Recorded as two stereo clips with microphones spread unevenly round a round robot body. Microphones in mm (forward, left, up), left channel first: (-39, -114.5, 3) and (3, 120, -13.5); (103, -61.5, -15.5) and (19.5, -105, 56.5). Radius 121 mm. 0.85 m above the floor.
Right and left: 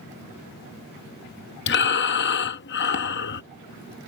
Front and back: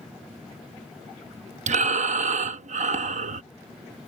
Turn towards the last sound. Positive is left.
turn(degrees=-145)